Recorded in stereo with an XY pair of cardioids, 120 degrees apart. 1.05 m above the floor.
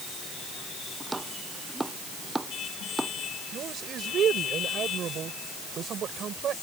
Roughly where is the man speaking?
Ahead right.